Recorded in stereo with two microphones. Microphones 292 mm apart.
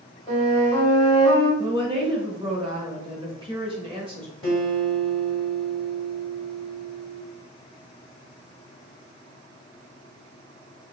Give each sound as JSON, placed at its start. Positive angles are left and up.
{"t": 0.3, "sound": "a flute", "side_deg": 25, "distance_m": 1.5}
{"t": 1.6, "sound": "a woman speaking", "side_deg": -20, "distance_m": 0.9}
{"t": 4.4, "sound": "a guitar", "side_deg": 20, "distance_m": 1.7}